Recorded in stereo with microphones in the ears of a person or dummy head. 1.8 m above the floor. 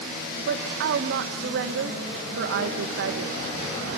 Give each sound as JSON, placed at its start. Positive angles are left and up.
{"t": 0.5, "sound": "a woman speaking", "side_deg": -55, "distance_m": 1.5}